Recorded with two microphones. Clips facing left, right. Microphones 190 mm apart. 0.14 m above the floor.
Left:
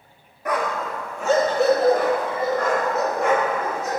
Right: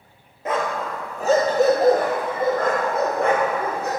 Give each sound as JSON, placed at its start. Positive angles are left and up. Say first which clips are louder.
{"t": 0.5, "sound": "a dog barking", "louder": "even", "side_deg": -25, "distance_m": 1.4}